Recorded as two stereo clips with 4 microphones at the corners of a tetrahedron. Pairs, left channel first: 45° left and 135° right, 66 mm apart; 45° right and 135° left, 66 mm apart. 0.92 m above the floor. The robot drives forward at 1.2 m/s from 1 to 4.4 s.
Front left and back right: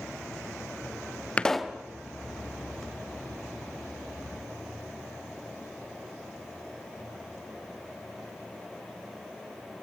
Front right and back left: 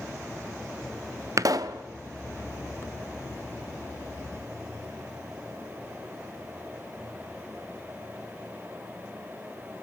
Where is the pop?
110° left, 0.5 m; by 1.8 s 150° left, 0.9 m.